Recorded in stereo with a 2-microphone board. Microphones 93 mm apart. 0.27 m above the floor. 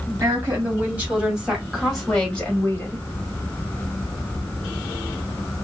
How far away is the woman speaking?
About 2.0 m.